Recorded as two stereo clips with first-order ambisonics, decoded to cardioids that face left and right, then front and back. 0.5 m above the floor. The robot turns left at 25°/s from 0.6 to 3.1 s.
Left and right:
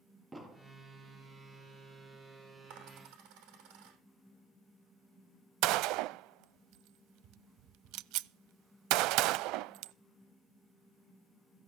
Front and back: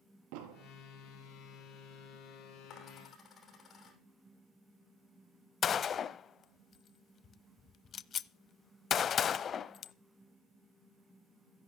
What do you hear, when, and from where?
0.3 s an explosion: 170° right, 3 m
2.7 s a dropped coin: 60° right, 6.5 m; by 4.0 s 70° right, 6.5 m
5.6 s a gunshot: 65° right, 0.6 m